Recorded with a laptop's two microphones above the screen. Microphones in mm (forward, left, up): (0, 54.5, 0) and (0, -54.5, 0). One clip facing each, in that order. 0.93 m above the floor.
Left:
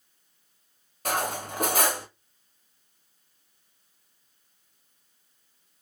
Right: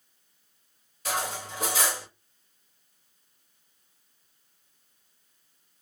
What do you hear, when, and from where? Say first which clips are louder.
1.1 s cutlery clinking: left 3 dB; 55° left (ahead or behind), 0.6 m